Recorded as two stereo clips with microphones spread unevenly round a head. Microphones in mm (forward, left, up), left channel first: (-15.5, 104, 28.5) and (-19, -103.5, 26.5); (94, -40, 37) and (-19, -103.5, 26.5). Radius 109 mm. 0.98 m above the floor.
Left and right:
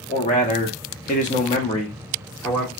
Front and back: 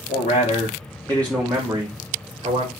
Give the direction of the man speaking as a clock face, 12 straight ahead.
11 o'clock.